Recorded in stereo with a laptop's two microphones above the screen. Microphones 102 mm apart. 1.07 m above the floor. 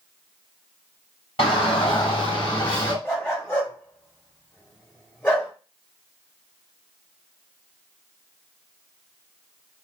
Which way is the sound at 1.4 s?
60° left (ahead or behind).